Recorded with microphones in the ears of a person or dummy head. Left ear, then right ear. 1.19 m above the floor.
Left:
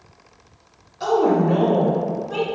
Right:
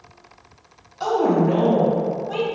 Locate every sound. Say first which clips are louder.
1.0 s a woman speaking: left 1 dB; 15° right (ahead or behind), 1.2 m